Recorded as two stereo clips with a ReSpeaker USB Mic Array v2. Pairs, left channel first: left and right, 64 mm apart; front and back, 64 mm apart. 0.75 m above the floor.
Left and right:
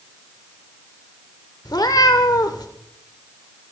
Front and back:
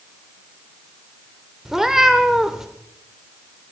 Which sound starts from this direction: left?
A cat meowing, at 1.6 s.